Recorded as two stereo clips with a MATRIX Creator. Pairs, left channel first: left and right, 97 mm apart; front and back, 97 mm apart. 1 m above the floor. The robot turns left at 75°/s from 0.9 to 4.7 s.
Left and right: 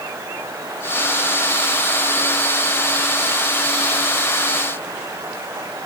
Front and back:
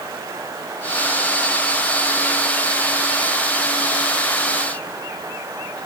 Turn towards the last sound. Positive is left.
No sound to turn to.